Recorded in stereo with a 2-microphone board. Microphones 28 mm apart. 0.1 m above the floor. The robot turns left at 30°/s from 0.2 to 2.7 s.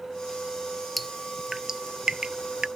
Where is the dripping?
Centre (ahead or behind); by 2.7 s 35° right (ahead or behind).